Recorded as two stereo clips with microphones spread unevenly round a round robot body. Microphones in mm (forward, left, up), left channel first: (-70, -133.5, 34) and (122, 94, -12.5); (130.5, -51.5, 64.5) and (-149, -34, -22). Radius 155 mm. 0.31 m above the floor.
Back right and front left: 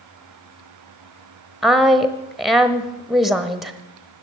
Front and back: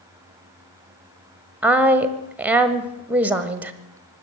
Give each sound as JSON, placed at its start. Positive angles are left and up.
{"t": 1.6, "sound": "a woman speaking", "azimuth_deg": 125, "distance_m": 1.0}